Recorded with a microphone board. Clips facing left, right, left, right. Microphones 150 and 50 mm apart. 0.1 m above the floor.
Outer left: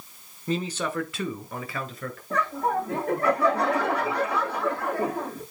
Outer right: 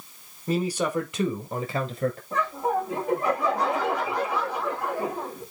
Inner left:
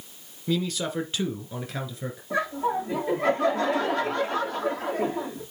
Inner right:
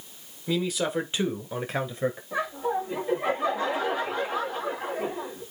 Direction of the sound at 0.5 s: 5° right (ahead or behind).